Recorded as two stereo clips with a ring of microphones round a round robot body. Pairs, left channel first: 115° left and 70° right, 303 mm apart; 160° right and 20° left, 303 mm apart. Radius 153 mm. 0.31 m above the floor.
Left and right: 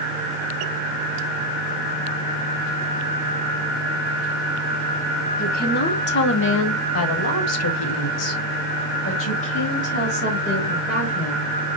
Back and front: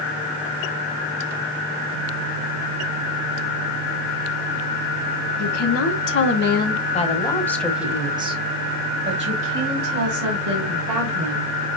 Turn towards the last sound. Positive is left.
turn(degrees=50)